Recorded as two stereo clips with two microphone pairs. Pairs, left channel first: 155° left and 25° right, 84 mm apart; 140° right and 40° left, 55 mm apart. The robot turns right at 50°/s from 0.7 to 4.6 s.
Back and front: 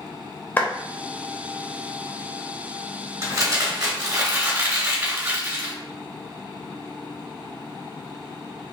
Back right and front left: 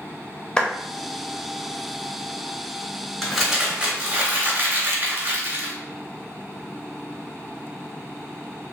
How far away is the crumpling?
About 1.8 m.